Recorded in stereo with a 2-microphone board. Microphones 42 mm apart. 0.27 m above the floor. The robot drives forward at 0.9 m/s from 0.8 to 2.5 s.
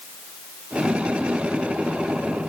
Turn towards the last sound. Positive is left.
No sound to turn to.